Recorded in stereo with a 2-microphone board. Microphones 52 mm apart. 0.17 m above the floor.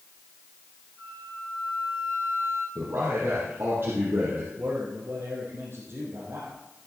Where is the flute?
60° left (ahead or behind), 4 m.